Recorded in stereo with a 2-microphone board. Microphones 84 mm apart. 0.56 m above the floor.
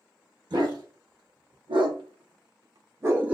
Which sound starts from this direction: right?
A dog barking, at 0.5 s.